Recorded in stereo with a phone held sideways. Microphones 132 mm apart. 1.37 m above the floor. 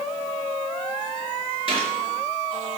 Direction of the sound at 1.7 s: 45° right (ahead or behind).